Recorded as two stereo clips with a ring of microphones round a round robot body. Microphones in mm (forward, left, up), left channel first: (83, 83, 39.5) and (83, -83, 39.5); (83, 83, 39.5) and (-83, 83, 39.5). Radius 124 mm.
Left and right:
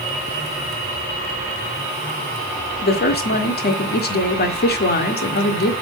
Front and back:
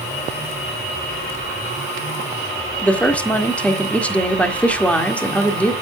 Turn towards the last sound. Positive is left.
turn(degrees=80)